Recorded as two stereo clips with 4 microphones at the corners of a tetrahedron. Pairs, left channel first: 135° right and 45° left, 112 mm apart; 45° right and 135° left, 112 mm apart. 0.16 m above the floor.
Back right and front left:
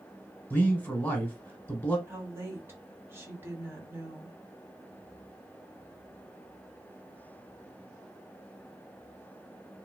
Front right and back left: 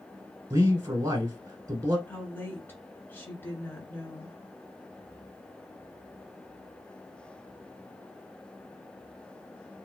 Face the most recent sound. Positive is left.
turn(degrees=0)